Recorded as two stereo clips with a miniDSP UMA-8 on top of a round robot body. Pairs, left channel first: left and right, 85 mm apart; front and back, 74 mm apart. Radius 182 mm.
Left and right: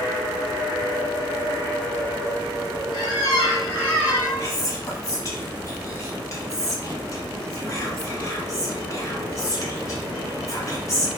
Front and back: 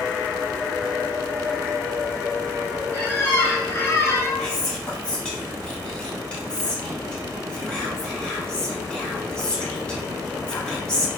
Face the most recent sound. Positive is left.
turn(degrees=70)